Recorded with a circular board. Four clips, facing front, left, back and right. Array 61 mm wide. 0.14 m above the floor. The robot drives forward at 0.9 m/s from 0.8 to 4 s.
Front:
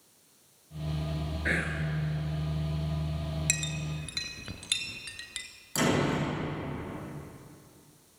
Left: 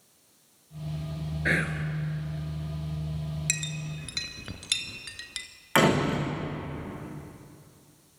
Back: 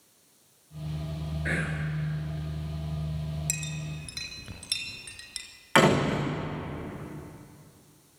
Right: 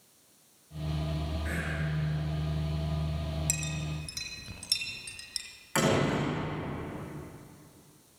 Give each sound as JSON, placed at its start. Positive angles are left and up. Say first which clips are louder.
{"t": 1.4, "sound": "whispering", "louder": "left 10 dB, front 1 dB", "azimuth_deg": 80, "distance_m": 2.5}
{"t": 3.5, "sound": "a clink", "louder": "left 1 dB, front 2 dB", "azimuth_deg": 50, "distance_m": 1.7}
{"t": 5.8, "sound": "a door slam", "louder": "left 4 dB, back 5 dB", "azimuth_deg": 150, "distance_m": 9.0}